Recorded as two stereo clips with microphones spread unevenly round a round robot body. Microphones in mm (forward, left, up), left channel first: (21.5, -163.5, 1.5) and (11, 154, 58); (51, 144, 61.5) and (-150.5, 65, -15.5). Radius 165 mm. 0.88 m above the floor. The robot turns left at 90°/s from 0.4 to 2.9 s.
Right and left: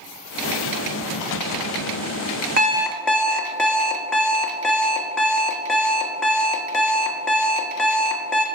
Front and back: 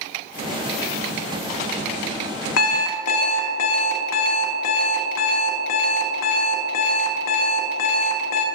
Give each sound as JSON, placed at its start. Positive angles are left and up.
{"t": 2.6, "sound": "an alarm clock", "azimuth_deg": 30, "distance_m": 0.6}